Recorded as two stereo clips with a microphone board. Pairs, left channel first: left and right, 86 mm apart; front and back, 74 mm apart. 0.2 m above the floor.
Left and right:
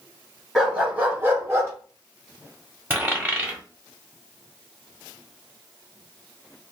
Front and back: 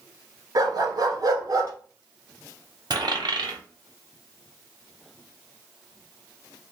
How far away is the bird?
I don't hear a bird.